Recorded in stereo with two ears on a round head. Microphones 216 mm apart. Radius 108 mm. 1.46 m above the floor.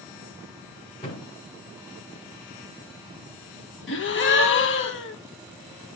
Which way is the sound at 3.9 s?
55° left (ahead or behind).